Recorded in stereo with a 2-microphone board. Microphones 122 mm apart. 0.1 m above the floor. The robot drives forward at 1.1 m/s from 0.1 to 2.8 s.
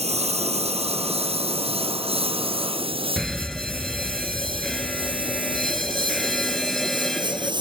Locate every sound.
0.0 s a lawn mower: 60° right (ahead or behind); by 7.6 s 40° right (ahead or behind)
3.2 s a fire alarm: 5° left (ahead or behind)